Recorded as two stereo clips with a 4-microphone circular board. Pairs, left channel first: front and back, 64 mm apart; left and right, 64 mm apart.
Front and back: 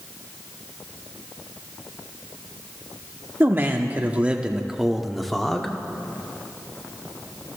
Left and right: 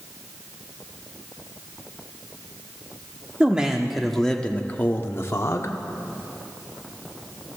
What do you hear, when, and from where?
3.4 s a man speaking: 150° right, 0.9 m; by 5.7 s 75° left, 1.1 m